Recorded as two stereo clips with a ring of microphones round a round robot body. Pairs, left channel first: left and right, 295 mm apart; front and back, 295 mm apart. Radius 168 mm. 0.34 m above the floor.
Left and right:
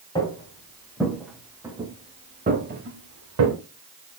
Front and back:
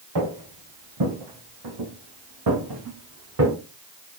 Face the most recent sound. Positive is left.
turn(degrees=-125)